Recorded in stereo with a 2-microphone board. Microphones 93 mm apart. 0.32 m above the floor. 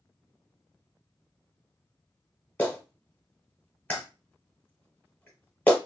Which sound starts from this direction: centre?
A clap, at 2.6 s.